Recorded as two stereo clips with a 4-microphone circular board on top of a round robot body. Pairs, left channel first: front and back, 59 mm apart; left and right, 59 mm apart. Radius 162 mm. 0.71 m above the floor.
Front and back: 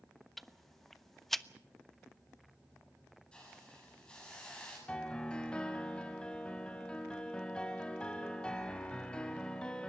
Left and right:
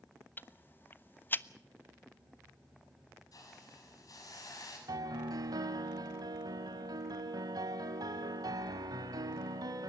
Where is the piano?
75° right, 1.1 m.